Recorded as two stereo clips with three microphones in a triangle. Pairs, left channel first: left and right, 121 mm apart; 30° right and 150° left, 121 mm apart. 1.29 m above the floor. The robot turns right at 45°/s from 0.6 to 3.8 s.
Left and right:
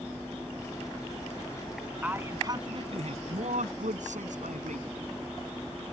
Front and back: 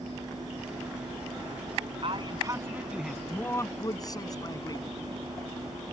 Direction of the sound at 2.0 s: 170° right.